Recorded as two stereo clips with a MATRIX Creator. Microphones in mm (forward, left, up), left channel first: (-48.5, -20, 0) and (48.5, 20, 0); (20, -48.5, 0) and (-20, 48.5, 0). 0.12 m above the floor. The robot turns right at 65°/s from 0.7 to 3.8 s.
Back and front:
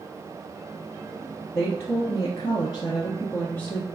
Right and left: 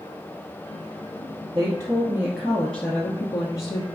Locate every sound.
1.5 s a woman speaking: 135° left, 1.3 m; by 3.9 s 80° right, 1.3 m